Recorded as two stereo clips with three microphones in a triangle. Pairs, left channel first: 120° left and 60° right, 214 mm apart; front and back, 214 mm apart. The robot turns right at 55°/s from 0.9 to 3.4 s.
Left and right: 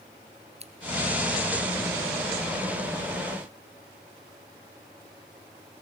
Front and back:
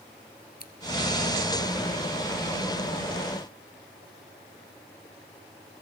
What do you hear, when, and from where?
0.6 s scissors: 15° right, 1.6 m